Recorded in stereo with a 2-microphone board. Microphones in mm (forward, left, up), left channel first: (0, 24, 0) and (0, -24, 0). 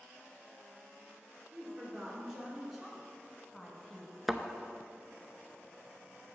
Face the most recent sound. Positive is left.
turn(degrees=-5)  # may be behind; listen again after turning